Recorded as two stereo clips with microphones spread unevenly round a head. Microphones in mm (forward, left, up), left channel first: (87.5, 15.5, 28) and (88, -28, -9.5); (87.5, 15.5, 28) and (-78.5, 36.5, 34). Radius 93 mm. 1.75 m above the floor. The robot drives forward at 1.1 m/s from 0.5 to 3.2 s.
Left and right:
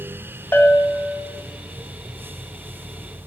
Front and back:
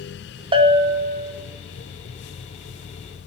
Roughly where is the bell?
Behind left.